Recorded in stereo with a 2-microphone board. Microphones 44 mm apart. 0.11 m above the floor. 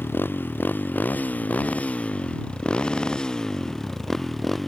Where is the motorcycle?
55° left (ahead or behind); by 4.7 s 5° left (ahead or behind).